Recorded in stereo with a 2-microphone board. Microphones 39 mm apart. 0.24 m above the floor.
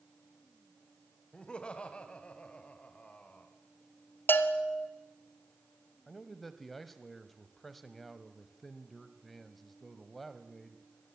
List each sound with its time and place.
1.3 s laughter: 30° left (ahead or behind), 1.7 m; by 3.5 s 35° left (ahead or behind), 2.5 m
4.3 s a bell: 75° left (ahead or behind), 1.4 m
6.1 s a man speaking: 5° left (ahead or behind), 1.4 m